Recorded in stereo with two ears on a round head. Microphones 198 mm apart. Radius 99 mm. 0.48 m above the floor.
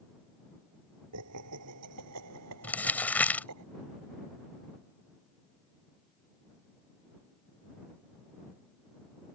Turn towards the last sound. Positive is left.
turn(degrees=5)  # may be behind; listen again after turning